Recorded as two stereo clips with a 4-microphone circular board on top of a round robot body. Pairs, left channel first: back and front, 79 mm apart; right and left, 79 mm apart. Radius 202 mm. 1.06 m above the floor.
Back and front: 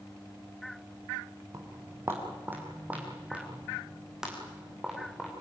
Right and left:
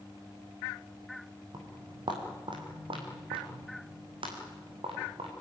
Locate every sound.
1.5 s footsteps: 55° left, 2 m; by 5.3 s 90° left, 4 m